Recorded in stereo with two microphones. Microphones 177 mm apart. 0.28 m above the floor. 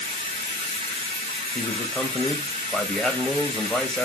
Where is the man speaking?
5° left (ahead or behind), 1.0 m.